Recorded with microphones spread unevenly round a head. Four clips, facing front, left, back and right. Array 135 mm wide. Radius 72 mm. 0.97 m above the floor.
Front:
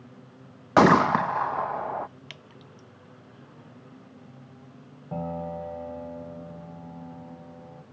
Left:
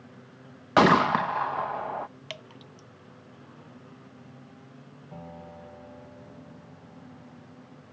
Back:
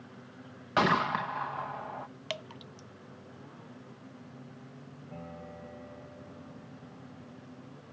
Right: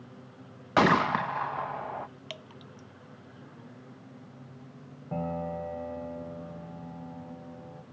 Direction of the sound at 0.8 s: 25° left.